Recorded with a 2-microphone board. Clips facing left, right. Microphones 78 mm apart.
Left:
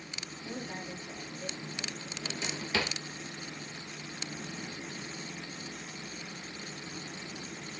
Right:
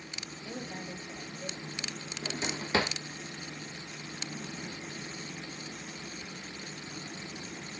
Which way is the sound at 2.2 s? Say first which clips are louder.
Right 3 dB; 30° right (ahead or behind).